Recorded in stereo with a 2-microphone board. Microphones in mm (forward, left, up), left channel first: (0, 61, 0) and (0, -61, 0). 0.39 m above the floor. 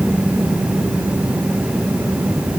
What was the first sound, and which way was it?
Only background noise.